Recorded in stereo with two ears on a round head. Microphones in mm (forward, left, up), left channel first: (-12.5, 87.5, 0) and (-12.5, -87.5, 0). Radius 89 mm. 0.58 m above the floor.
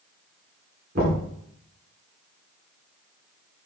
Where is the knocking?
50° right (ahead or behind), 4 m.